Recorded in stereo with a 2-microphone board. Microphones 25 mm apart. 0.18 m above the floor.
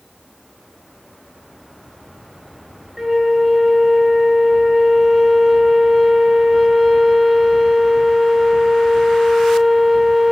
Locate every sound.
3.0 s a flute: 15° right (ahead or behind), 0.5 m